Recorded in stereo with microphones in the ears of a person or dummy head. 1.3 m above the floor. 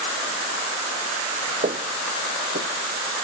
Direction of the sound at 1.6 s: 30° right (ahead or behind).